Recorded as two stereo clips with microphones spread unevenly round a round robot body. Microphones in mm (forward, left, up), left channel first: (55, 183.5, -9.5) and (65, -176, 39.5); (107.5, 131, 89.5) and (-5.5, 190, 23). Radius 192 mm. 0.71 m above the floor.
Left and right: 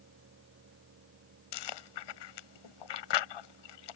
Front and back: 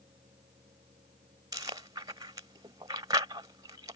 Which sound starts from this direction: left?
Chewing, at 1.5 s.